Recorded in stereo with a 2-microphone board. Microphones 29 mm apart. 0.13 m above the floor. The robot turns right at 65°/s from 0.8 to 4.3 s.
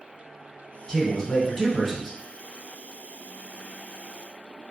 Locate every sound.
0.9 s a man speaking: 20° left (ahead or behind), 1.2 m; by 2.2 s centre (ahead or behind), 1.2 m